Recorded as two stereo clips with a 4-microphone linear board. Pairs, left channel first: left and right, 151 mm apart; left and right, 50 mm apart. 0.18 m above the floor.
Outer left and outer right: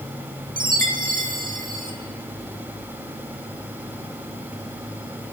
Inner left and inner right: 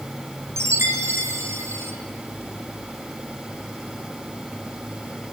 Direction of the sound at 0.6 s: 70° right (ahead or behind).